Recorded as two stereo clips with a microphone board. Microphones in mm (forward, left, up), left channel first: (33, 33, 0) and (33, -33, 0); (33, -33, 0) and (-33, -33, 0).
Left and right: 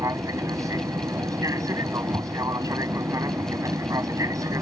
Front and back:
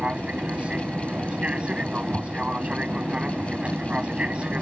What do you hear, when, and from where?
0.0 s an aircraft: 110° right